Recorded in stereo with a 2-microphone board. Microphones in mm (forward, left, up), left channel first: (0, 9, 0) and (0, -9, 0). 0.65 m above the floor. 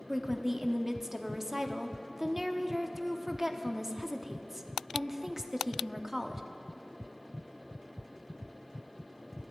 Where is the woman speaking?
20° right (ahead or behind), 1.0 m.